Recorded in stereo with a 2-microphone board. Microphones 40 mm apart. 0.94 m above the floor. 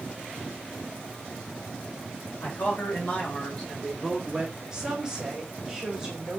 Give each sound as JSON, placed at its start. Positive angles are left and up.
{"t": 2.4, "sound": "a man speaking", "side_deg": 50, "distance_m": 2.0}
{"t": 4.7, "sound": "a woman speaking", "side_deg": -15, "distance_m": 1.5}